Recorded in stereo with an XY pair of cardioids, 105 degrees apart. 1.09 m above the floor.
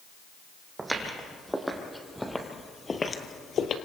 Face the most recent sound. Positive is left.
turn(degrees=65)